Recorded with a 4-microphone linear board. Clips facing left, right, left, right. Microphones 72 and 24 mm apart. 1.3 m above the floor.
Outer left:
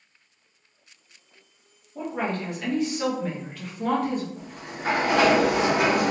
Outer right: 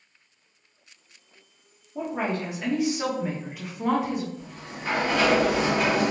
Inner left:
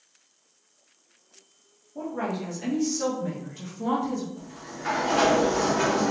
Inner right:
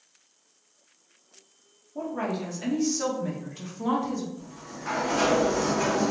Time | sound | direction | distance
1.9 | a woman speaking | 10° right (ahead or behind) | 1.3 m
4.4 | a sliding door | 70° left (ahead or behind) | 1.0 m